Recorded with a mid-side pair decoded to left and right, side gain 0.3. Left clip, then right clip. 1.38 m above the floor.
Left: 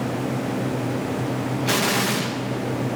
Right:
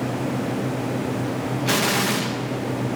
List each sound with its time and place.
1.7 s an explosion: 5° right, 1.8 m